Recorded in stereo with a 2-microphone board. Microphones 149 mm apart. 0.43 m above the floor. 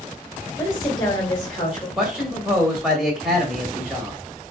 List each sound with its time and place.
0.6 s a woman speaking: 10° left (ahead or behind), 1.9 m
2.0 s a man speaking: 5° right (ahead or behind), 1.4 m